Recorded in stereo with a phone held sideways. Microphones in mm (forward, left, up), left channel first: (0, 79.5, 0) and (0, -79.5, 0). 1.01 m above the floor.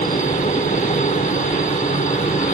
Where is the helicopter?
50° left (ahead or behind).